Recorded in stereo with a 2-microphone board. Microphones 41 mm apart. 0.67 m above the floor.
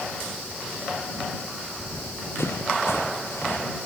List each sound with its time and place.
1.8 s running footsteps: 80° left